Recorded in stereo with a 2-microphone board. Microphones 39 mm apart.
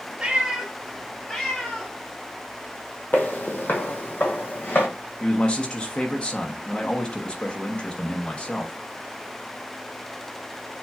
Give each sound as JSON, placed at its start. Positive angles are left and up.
{"t": 0.2, "sound": "a cat meowing", "side_deg": -25, "distance_m": 1.3}
{"t": 3.1, "sound": "footsteps", "side_deg": 50, "distance_m": 1.1}
{"t": 5.2, "sound": "a man speaking", "side_deg": 25, "distance_m": 0.9}